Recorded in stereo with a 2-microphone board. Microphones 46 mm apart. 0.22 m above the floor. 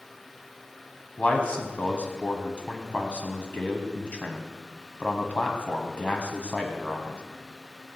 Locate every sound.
1.2 s a man speaking: 30° left (ahead or behind), 1.4 m